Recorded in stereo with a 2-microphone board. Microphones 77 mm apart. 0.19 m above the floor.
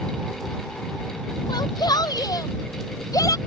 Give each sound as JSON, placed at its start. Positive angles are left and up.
{"t": 1.5, "sound": "a shout", "side_deg": 60}